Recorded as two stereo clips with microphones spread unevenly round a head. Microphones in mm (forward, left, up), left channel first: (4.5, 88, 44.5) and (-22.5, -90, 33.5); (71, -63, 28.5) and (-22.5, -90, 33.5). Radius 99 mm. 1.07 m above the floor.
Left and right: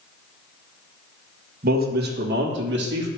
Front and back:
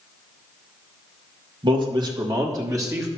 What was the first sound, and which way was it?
A man speaking, 130° right.